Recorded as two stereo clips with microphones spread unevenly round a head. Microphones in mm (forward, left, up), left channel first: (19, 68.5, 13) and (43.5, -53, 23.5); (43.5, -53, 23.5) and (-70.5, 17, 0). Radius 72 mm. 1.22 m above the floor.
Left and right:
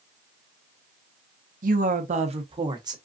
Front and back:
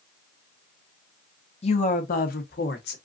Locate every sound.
1.6 s a woman speaking: 80° right, 1.2 m; by 3.0 s 20° right, 1.5 m